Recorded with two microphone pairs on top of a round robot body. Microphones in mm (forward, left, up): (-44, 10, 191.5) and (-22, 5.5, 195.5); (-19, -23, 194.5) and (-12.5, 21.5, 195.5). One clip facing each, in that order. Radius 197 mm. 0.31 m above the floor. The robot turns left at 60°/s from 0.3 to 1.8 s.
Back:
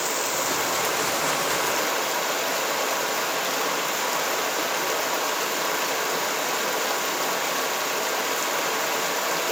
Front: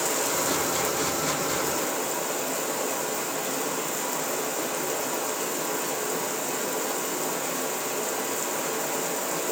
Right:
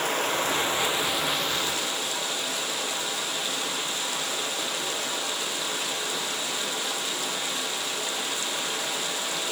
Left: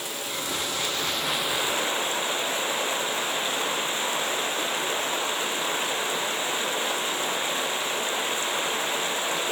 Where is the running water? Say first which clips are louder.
Back 1 dB, right 7 dB; 130° right, 1.0 m; by 9.5 s 140° left, 1.0 m.